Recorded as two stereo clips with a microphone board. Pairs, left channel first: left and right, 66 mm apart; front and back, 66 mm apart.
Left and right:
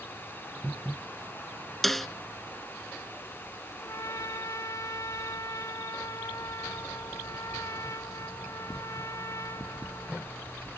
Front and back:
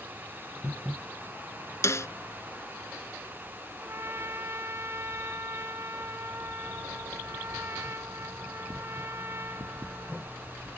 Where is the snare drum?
5° left.